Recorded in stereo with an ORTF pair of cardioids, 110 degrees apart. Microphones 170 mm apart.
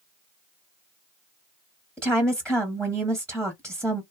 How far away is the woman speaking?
About 0.9 m.